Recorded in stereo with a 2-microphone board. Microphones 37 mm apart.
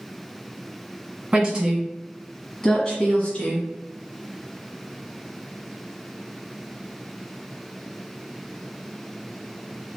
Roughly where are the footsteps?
No footsteps in this recording.